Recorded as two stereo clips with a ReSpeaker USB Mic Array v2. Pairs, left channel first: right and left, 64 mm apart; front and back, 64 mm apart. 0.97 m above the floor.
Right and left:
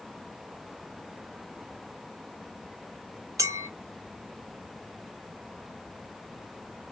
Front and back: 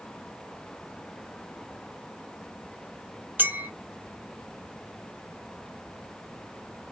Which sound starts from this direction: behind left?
A clink, at 3.4 s.